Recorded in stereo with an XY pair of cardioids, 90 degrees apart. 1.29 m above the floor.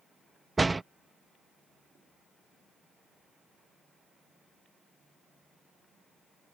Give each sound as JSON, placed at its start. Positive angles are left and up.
{"t": 0.6, "sound": "a door slam", "azimuth_deg": -20}